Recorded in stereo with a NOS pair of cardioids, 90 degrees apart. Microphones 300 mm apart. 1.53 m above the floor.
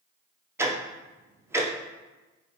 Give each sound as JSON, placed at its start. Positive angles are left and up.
{"t": 0.6, "sound": "ticking", "azimuth_deg": -10, "distance_m": 0.7}